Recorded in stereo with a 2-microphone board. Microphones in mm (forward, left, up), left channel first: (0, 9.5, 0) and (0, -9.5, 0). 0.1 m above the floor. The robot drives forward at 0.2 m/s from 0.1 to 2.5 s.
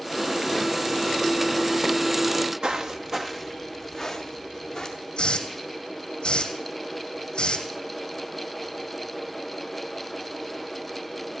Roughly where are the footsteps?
Right.